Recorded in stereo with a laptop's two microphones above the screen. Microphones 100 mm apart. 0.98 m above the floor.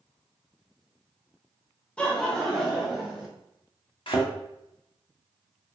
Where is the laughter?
10° left (ahead or behind), 1.0 m; by 3.3 s 5° right (ahead or behind), 1.8 m.